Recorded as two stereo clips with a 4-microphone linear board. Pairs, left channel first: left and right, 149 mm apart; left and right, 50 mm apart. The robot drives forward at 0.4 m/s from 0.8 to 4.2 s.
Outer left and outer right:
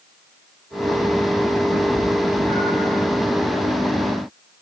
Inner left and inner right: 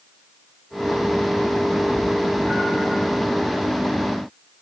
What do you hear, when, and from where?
1.7 s a cat meowing: 75° right (ahead or behind), 9 m